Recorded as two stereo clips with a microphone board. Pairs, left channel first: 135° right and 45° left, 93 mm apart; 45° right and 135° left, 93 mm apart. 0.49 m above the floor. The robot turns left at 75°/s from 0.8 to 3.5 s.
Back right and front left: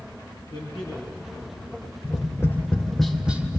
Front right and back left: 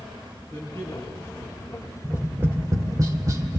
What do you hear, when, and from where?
0.5 s a man speaking: 105° right, 7.5 m; by 1.9 s 170° left, 7.5 m
2.0 s tapping: 150° right, 1.7 m; by 3.6 s 105° left, 1.7 m